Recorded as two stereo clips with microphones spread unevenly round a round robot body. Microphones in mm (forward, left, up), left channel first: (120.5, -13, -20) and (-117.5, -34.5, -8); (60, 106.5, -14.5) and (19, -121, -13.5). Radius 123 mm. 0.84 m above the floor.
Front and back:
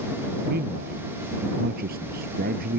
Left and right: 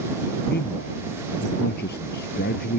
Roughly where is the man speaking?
Behind left.